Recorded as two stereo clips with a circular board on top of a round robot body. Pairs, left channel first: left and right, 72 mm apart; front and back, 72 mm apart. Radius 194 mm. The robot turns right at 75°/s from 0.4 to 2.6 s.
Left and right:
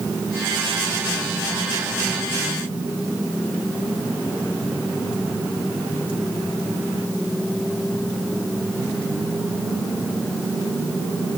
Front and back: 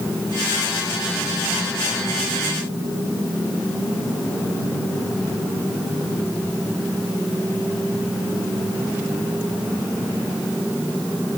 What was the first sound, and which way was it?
Only background noise.